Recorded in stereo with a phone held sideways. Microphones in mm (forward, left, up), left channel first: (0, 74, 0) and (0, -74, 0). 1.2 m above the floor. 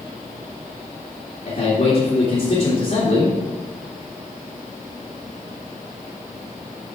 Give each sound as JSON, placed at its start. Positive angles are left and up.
{"t": 1.4, "sound": "a man speaking", "side_deg": 60, "distance_m": 2.5}